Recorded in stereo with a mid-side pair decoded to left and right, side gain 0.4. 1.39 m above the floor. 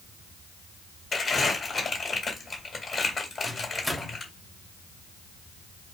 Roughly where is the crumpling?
Ahead left.